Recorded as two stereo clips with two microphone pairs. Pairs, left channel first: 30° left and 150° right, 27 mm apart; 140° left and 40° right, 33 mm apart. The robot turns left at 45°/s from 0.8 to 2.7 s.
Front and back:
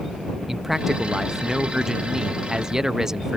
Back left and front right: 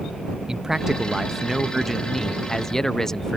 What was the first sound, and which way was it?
A man speaking, 90° right.